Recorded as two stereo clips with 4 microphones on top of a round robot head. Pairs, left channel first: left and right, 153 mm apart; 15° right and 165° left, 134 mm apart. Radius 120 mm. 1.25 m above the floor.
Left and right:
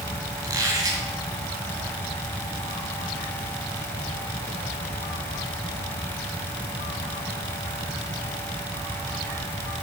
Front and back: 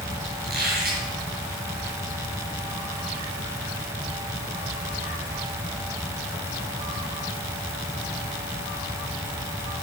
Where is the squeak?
155° right, 1.9 m.